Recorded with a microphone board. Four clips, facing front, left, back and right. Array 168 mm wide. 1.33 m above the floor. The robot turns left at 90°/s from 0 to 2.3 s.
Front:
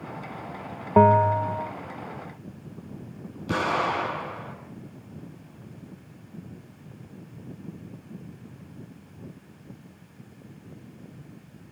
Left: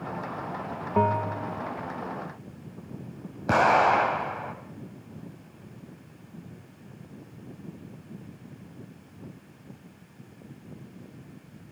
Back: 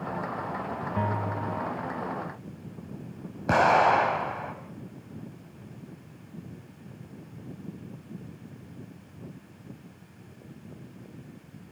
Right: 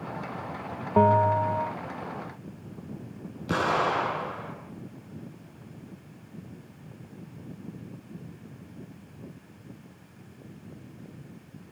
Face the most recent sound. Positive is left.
turn(degrees=140)